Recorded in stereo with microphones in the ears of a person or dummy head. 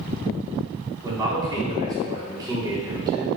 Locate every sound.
1.0 s a man speaking: 20° right (ahead or behind), 3.5 m